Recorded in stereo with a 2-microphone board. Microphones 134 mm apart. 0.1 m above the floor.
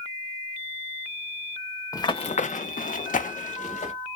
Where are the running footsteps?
25° left (ahead or behind), 0.5 m; by 3.9 s 60° left (ahead or behind), 1.2 m.